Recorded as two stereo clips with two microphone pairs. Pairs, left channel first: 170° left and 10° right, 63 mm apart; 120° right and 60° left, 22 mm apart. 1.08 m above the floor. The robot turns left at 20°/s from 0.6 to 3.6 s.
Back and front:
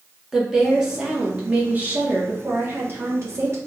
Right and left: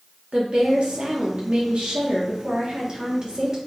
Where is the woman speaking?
70° left, 1.0 m; by 3.6 s 10° left, 1.0 m.